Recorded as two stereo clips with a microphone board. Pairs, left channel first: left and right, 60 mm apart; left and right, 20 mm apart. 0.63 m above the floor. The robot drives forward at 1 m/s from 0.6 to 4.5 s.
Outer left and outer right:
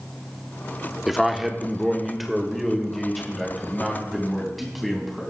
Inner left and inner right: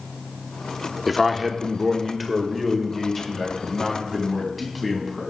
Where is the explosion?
No explosion in this recording.